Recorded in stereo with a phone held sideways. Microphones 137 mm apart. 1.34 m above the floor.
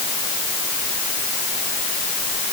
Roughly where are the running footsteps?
I don't hear running footsteps.